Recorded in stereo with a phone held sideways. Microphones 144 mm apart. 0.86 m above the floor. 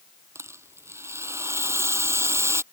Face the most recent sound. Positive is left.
turn(degrees=-15)  # may be behind; listen again after turning